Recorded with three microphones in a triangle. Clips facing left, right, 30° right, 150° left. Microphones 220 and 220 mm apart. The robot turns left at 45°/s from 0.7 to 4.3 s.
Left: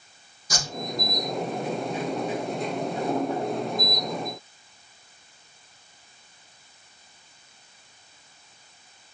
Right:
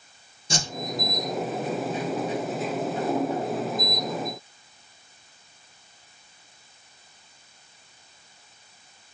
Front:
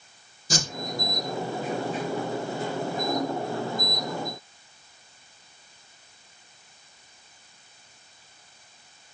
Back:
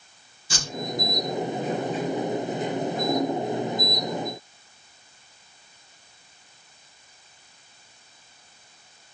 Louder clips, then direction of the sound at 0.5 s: Right 3 dB, front 6 dB; 45° right.